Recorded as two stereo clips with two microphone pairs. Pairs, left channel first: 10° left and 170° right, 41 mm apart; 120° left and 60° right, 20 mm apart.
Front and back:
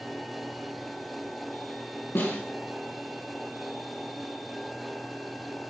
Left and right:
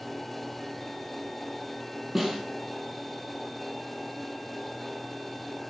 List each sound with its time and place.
2.1 s a snare drum: 15° left, 3 m